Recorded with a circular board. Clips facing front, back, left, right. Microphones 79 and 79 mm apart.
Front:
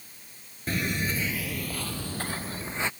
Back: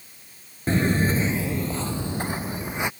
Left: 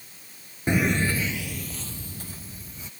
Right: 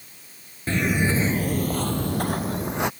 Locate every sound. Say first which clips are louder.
0.7 s footsteps: back 8 dB, right 1 dB; 145° left; by 2.9 s 105° right